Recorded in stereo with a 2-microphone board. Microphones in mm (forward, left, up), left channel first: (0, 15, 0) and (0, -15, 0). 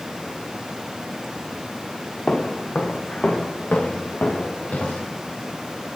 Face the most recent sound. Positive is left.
turn(degrees=70)  # may be behind; listen again after turning